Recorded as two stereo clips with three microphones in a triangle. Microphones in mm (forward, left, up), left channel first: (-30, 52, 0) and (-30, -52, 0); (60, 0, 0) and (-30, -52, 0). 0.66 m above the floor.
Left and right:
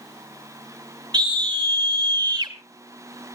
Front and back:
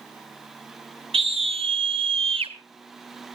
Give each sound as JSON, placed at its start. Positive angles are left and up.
{"t": 1.1, "sound": "a scream", "azimuth_deg": -130, "distance_m": 2.5}